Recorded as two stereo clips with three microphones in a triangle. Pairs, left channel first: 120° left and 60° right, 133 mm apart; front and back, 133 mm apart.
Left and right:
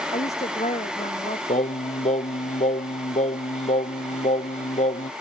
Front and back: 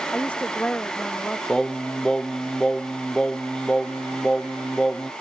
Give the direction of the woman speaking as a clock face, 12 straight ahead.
9 o'clock.